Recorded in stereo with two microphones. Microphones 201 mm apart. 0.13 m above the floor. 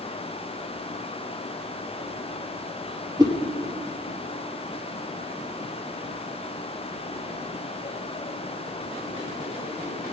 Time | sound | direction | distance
3.2 | a whoosh | 20° right (ahead or behind) | 1.4 m